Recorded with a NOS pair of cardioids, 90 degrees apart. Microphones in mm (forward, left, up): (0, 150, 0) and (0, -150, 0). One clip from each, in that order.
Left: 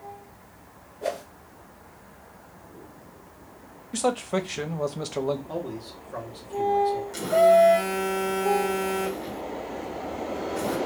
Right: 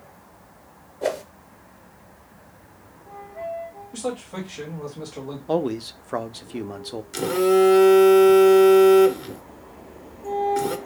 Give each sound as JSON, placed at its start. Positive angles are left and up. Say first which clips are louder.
{"t": 1.0, "sound": "a whoosh", "louder": "right 4 dB", "azimuth_deg": -45, "distance_m": 0.8}
{"t": 3.9, "sound": "a man speaking", "louder": "left 5 dB", "azimuth_deg": 50, "distance_m": 0.9}
{"t": 5.5, "sound": "a man speaking", "louder": "right 9 dB", "azimuth_deg": -60, "distance_m": 0.6}
{"t": 7.1, "sound": "a phone buzzing", "louder": "left 2 dB", "azimuth_deg": -45, "distance_m": 0.8}